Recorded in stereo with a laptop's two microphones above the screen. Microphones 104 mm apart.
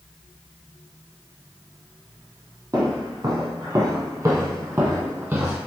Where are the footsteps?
35° right (ahead or behind), 1.4 m; by 5.6 s 15° right (ahead or behind), 1.5 m.